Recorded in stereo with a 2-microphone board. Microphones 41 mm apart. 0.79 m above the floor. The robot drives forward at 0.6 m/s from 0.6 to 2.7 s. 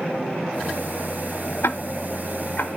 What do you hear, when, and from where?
1.6 s ticking: 70° left (ahead or behind), 0.7 m; by 2.7 s 45° left (ahead or behind), 0.9 m